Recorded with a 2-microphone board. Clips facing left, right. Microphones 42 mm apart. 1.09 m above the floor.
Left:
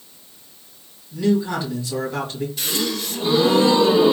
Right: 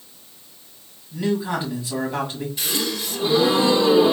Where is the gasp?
5° right (ahead or behind), 2 m.